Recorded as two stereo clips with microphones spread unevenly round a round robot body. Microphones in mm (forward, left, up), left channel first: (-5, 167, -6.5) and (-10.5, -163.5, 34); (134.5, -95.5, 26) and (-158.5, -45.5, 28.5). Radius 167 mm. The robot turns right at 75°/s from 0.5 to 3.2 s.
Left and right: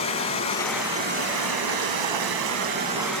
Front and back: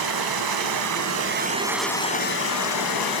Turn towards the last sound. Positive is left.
turn(degrees=5)